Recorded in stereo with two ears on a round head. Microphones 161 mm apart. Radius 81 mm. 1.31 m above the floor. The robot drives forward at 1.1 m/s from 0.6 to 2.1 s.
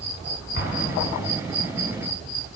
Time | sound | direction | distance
0.6 | an explosion | 60° left (ahead or behind) | 6.5 m